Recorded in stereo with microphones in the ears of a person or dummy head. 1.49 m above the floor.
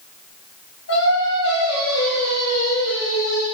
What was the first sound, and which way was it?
Singing, 65° left (ahead or behind).